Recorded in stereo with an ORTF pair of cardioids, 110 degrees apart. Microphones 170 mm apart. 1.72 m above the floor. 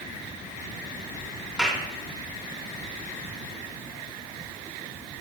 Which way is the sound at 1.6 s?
5° right.